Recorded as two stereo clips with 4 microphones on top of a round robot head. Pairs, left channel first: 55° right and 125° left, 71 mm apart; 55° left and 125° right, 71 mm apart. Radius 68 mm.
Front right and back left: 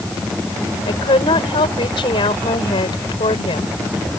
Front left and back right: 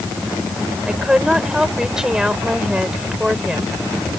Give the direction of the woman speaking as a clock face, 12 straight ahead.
1 o'clock.